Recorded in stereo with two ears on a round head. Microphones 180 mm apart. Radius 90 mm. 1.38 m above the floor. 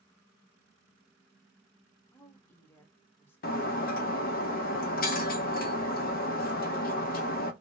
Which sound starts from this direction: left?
Breaking glass, at 3.4 s.